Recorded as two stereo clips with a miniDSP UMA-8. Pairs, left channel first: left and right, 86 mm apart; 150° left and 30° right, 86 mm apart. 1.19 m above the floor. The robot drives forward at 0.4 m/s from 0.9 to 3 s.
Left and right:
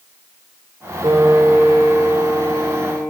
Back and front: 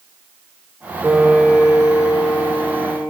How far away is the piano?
About 0.9 m.